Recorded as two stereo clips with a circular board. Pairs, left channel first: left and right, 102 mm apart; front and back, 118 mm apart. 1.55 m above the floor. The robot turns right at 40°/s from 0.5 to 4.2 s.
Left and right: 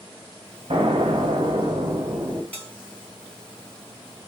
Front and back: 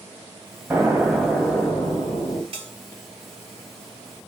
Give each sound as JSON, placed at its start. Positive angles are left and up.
{"t": 0.7, "sound": "an explosion", "azimuth_deg": -115, "distance_m": 0.9}
{"t": 2.5, "sound": "a bell", "azimuth_deg": 160, "distance_m": 2.0}